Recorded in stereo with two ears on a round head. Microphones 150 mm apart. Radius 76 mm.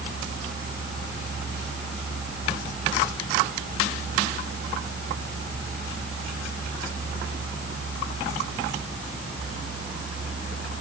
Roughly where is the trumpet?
No trumpet in this recording.